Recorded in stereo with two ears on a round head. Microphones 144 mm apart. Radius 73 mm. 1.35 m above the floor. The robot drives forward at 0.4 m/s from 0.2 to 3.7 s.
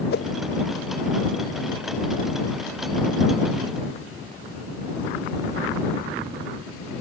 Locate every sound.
0.1 s a whoosh: 65° left (ahead or behind)